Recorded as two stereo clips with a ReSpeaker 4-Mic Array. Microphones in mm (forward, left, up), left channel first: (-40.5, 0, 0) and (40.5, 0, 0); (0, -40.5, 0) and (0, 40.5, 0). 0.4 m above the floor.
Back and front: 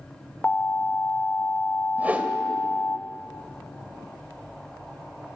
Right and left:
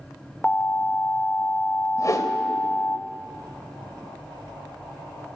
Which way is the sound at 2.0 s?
65° right.